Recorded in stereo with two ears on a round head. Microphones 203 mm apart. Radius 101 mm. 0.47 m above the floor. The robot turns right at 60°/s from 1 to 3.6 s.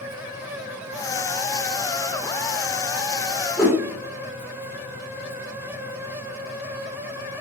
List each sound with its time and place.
3.6 s a whoosh: 5° right (ahead or behind), 1.4 m